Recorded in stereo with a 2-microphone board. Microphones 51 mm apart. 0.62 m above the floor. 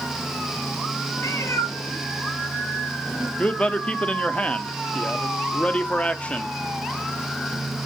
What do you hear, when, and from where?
1.2 s a cat meowing: 75° left (ahead or behind), 1.6 m; by 3.3 s 30° left (ahead or behind), 3 m
3.4 s a man speaking: 25° left (ahead or behind), 0.7 m